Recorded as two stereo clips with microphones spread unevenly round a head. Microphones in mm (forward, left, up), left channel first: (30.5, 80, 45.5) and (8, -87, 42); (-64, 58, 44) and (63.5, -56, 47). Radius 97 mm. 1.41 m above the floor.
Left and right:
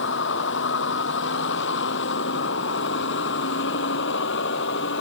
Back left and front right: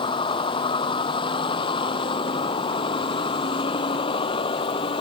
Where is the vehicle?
75° left.